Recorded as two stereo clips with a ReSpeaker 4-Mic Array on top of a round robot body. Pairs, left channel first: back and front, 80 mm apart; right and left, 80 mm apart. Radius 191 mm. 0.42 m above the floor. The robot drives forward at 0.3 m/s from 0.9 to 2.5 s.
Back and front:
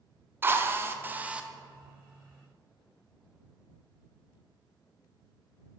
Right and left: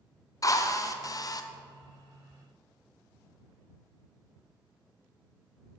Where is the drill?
55° right, 0.7 m; by 1.5 s 75° right, 0.7 m.